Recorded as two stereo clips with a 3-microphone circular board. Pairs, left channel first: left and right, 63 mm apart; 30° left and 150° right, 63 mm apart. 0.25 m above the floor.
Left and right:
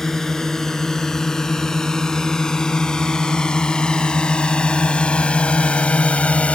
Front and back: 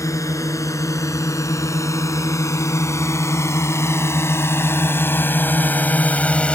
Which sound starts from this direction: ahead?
A drone, at 0.0 s.